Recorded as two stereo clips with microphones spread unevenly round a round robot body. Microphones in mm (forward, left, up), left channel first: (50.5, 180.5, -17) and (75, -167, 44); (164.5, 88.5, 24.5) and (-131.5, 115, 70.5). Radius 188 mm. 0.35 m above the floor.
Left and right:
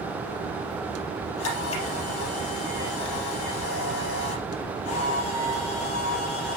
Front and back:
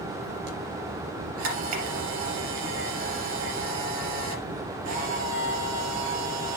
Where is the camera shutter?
150° left, 3.5 m.